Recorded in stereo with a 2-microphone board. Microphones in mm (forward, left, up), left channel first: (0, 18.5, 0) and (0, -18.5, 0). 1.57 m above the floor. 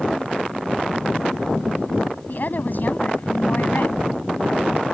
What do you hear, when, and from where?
2.3 s a woman speaking: 50° left (ahead or behind); by 4.0 s 55° left (ahead or behind)